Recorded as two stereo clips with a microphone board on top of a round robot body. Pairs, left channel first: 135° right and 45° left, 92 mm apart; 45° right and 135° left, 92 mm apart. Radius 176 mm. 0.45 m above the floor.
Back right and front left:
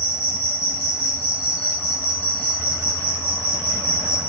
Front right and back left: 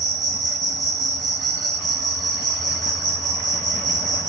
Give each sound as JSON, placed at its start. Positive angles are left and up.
{"t": 0.0, "sound": "an insect", "azimuth_deg": 115, "distance_m": 2.5}